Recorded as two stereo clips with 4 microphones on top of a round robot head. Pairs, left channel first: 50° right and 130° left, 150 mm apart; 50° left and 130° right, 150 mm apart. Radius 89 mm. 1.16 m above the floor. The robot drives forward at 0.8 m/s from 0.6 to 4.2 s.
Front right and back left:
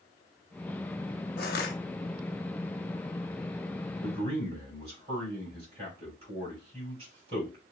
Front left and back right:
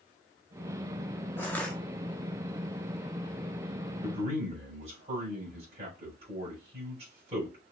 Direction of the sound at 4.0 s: Straight behind.